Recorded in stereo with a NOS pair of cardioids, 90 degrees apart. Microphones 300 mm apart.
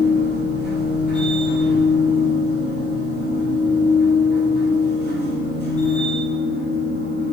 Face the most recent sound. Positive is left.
turn(degrees=-35)